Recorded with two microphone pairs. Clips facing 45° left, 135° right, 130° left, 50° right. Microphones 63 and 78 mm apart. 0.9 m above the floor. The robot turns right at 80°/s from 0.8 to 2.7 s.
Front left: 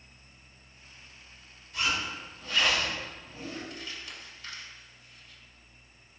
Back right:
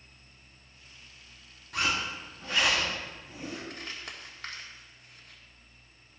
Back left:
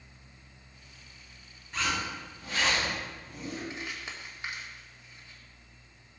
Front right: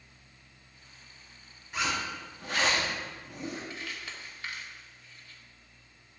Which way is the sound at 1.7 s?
135° right.